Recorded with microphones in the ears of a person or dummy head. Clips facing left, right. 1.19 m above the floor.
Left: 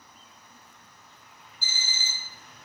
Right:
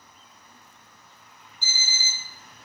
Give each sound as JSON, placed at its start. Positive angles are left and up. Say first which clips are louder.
{"t": 1.6, "sound": "an alarm clock", "louder": "right 2 dB", "side_deg": 5, "distance_m": 0.5}